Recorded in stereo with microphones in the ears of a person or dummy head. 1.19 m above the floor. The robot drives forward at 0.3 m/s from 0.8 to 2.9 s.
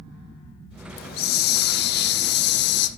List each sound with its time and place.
1.0 s a hiss: 60° left (ahead or behind), 2 m; by 2.9 s 70° left (ahead or behind), 2.0 m